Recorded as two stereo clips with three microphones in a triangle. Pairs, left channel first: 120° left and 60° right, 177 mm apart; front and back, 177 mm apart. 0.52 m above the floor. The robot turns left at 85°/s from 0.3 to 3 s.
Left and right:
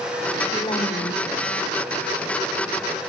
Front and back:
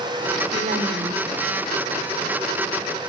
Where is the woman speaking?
170° right, 2 m; by 1.3 s 125° left, 2 m.